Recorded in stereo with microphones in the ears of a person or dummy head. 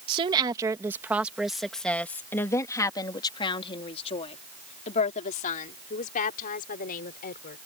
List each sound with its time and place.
0.1 s a woman speaking: 30° right (ahead or behind); by 7.6 s 50° left (ahead or behind)